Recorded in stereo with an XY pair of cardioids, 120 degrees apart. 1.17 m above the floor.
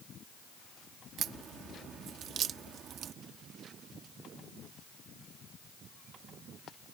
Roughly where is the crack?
Ahead right.